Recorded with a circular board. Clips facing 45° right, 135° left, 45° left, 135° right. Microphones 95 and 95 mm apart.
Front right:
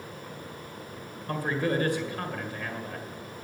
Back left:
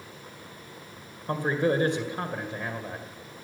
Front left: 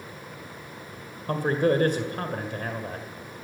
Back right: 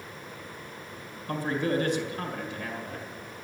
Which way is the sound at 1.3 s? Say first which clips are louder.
Back left 3 dB, front left 5 dB; 75° left.